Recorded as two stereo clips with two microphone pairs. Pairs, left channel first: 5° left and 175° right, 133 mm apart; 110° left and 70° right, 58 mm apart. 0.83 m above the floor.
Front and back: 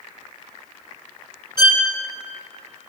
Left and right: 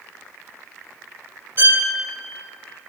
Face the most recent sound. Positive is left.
turn(degrees=-35)